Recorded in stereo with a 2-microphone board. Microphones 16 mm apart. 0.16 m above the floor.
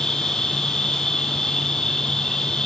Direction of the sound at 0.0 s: 65° left (ahead or behind).